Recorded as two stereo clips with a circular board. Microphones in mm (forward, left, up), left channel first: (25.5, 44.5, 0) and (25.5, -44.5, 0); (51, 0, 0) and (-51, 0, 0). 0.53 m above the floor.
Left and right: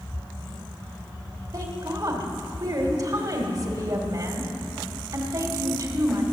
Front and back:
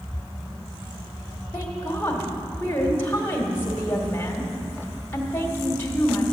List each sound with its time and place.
1.5 s a woman speaking: 65° right, 1.7 m